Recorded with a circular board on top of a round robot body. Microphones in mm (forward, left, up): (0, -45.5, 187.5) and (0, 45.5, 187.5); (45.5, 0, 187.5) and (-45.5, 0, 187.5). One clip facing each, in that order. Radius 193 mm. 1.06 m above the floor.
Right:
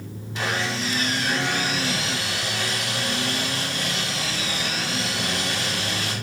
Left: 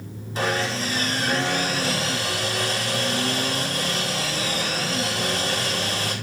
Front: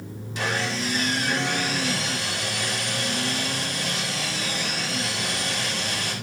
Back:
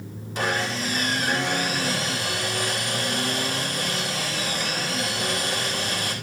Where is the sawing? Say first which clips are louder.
Left 2 dB, back 1 dB; 140° left, 4.5 m.